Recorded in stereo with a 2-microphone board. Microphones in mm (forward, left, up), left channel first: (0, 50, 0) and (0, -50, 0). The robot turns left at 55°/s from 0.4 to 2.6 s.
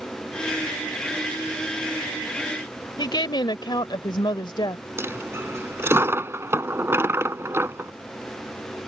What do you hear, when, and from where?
3.0 s a woman speaking: 50° left (ahead or behind)
5.0 s a dropped coin: 25° right (ahead or behind)